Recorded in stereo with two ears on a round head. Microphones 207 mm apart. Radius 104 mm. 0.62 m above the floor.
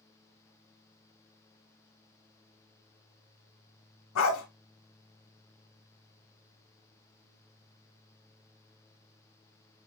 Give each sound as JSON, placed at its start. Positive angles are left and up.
{"t": 4.2, "sound": "a dog barking", "side_deg": 60, "distance_m": 1.6}